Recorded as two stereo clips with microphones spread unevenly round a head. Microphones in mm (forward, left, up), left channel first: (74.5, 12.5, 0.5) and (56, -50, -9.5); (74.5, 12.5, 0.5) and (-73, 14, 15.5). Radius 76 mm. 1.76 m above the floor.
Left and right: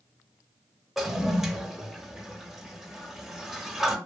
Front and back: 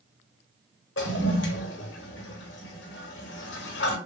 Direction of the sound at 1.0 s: 20° right.